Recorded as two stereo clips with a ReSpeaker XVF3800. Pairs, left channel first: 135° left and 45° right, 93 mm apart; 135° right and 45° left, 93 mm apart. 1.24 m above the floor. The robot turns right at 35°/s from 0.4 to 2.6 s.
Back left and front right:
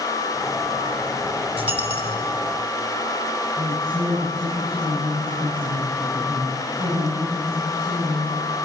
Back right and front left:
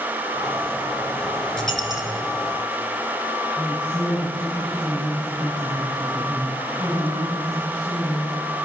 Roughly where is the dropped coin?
Ahead right.